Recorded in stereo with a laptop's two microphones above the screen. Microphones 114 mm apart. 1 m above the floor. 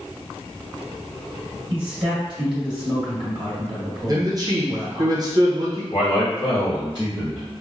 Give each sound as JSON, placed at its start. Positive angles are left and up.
{"t": 1.7, "sound": "a man speaking", "side_deg": -45, "distance_m": 1.1}
{"t": 4.1, "sound": "a man speaking", "side_deg": -35, "distance_m": 0.6}
{"t": 5.9, "sound": "a man speaking", "side_deg": 40, "distance_m": 1.1}